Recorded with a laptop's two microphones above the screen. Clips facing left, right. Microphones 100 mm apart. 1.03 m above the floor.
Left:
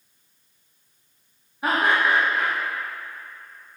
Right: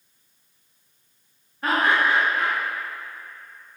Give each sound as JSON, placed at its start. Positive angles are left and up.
{"t": 1.6, "sound": "laughter", "side_deg": 10, "distance_m": 1.7}